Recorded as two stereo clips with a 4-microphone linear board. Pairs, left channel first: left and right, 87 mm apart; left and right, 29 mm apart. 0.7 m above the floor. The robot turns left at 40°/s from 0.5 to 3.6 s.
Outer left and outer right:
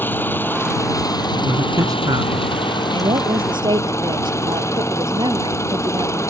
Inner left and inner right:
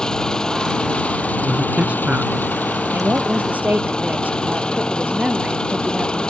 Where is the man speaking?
25° right; by 2.5 s 70° right.